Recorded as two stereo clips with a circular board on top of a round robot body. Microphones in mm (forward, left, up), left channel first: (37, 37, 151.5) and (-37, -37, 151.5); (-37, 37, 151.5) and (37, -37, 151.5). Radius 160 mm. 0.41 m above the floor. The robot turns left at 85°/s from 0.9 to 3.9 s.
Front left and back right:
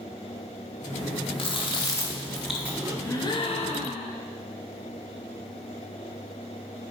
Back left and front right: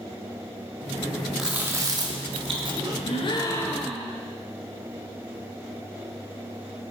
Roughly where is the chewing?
Ahead left.